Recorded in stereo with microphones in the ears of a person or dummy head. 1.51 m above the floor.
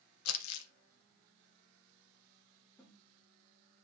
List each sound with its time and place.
0.2 s crumpling: 80° left, 1.3 m
2.8 s a snare drum: 5° left (ahead or behind), 2 m